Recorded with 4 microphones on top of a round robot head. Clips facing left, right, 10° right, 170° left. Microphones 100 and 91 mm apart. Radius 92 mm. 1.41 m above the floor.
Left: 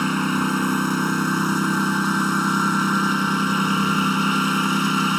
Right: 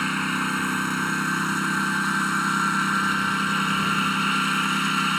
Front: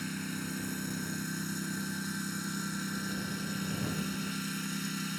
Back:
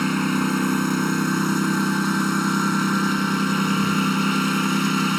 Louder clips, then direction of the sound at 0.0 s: Left 5 dB, back 17 dB; 150° left.